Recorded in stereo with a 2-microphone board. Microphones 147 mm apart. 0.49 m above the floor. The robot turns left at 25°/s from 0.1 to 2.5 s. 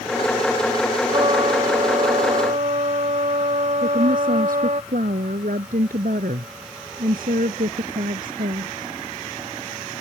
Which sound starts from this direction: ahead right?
A trumpet, at 1.1 s.